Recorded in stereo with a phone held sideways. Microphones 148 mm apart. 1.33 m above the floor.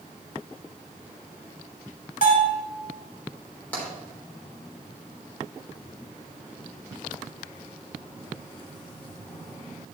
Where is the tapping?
10° left (ahead or behind), 3.5 m.